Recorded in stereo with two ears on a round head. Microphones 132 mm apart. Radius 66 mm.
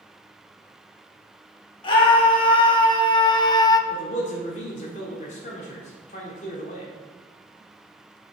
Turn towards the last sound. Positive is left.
turn(degrees=50)  # may be behind; listen again after turning